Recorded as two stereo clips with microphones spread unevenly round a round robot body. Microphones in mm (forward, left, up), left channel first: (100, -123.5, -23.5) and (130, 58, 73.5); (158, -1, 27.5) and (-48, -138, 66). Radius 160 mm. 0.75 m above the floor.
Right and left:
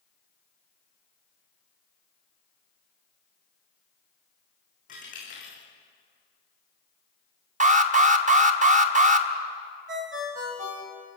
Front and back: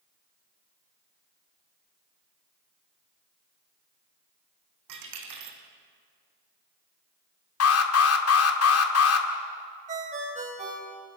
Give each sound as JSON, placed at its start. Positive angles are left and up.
{"t": 4.9, "sound": "a dropped coin", "azimuth_deg": -170, "distance_m": 3.5}
{"t": 7.6, "sound": "an alarm", "azimuth_deg": 20, "distance_m": 1.9}
{"t": 9.9, "sound": "a ringtone", "azimuth_deg": 145, "distance_m": 2.0}